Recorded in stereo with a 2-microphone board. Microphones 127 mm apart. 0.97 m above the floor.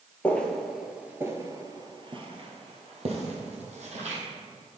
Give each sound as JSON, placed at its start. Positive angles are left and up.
{"t": 0.2, "sound": "footsteps", "side_deg": 10, "distance_m": 1.1}